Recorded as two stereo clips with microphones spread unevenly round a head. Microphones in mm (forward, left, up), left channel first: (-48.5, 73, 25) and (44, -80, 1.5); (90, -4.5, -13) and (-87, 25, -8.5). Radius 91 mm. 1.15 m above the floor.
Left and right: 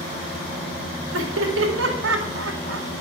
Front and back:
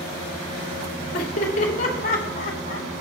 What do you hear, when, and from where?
1.1 s laughter: 60° right, 2.5 m